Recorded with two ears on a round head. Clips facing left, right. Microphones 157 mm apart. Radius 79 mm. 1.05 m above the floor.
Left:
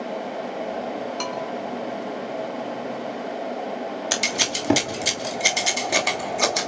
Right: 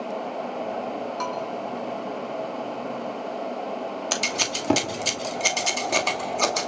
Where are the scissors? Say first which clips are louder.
Left 1 dB; 10° left (ahead or behind), 2.5 m.